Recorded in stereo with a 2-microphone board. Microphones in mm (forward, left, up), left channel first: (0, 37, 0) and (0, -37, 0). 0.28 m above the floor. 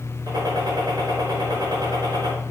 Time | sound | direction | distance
0.3 | a gunshot | 65° right (ahead or behind) | 4.5 m